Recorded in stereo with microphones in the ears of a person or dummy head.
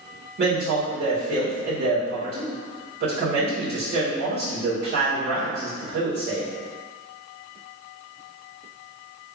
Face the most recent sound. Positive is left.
turn(degrees=-55)  # may be behind; listen again after turning